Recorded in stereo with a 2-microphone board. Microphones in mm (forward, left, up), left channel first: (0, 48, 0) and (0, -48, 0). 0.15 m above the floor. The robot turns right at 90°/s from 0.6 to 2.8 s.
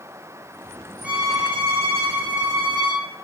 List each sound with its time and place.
1.0 s a violin: 170° right, 3 m; by 3.0 s 10° right, 3 m